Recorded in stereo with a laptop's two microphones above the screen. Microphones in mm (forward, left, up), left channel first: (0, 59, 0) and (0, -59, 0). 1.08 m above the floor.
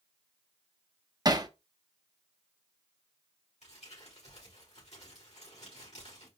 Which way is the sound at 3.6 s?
70° left (ahead or behind).